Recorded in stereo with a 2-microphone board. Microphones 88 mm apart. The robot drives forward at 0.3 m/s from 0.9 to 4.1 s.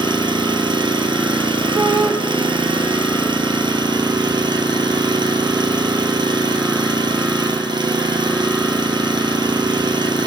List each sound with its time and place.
0.0 s an engine running: 60° right (ahead or behind), 1.3 m; by 10.3 s 55° right (ahead or behind), 1.4 m
1.7 s a shout: 35° right (ahead or behind), 4.5 m